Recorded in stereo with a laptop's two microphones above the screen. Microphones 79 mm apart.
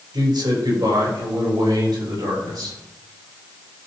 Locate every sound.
0.1 s a man speaking: 65° right (ahead or behind), 4.5 m; by 2.8 s 55° right (ahead or behind), 6 m